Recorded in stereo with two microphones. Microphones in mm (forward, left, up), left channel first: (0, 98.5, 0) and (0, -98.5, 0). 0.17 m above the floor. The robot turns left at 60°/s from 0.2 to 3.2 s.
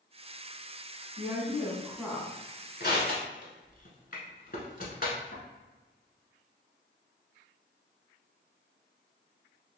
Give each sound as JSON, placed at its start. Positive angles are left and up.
{"t": 1.2, "sound": "a woman speaking", "side_deg": -25, "distance_m": 1.2}
{"t": 2.8, "sound": "crushing", "side_deg": 55, "distance_m": 1.0}